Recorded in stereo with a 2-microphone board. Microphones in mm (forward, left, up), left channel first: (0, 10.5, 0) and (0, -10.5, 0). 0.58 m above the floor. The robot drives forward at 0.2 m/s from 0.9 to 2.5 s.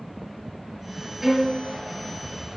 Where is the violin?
20° right (ahead or behind), 3.5 m.